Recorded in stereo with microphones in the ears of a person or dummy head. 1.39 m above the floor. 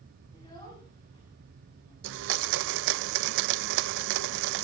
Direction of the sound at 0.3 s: 20° left (ahead or behind).